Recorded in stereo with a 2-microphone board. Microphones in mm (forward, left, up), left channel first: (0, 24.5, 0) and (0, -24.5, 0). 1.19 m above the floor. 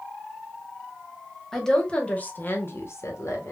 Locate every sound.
1.5 s a woman speaking: 10° left (ahead or behind), 1.1 m; by 3.5 s 80° left, 1.0 m